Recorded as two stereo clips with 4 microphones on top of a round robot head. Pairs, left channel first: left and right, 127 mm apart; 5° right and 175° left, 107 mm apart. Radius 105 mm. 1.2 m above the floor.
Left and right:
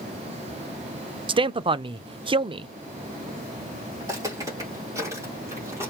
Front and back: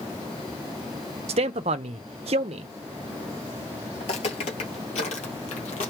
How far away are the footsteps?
About 1.5 m.